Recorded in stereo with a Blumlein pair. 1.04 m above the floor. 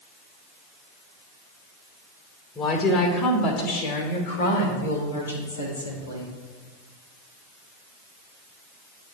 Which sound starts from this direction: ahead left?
A woman speaking, at 2.5 s.